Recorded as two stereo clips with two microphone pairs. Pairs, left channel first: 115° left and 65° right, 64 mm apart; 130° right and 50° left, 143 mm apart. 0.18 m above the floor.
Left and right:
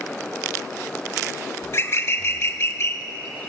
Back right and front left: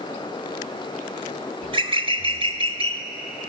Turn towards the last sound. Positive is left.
turn(degrees=85)